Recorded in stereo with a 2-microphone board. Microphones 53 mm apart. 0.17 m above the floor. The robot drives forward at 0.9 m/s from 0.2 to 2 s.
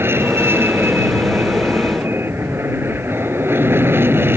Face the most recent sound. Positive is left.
turn(degrees=-45)  # may be behind; listen again after turning